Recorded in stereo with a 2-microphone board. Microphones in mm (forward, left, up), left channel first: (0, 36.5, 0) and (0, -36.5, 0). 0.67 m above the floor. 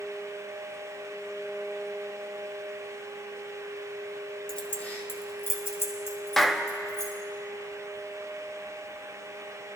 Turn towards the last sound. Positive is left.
turn(degrees=5)  # may be behind; listen again after turning